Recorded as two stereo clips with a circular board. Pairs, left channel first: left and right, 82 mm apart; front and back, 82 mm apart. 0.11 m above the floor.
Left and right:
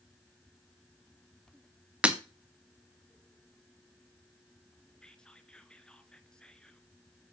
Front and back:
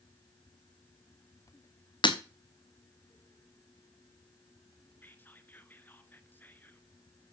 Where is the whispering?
25° left, 1.2 m.